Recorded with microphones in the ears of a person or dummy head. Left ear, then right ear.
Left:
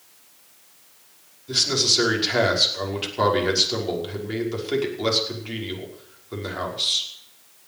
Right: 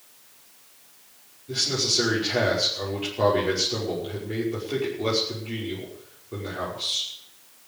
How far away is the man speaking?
About 5.5 m.